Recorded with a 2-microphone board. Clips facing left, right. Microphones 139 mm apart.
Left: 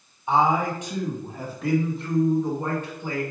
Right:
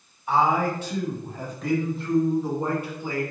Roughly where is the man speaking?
Left.